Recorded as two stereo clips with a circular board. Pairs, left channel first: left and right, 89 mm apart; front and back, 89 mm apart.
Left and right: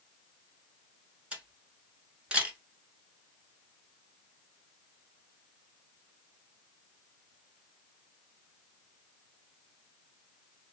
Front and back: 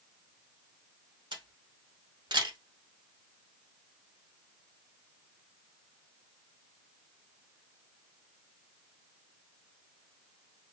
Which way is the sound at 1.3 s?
165° right.